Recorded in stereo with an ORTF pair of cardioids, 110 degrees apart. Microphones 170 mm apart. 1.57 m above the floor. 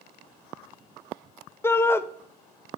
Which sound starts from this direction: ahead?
A shout, at 1.6 s.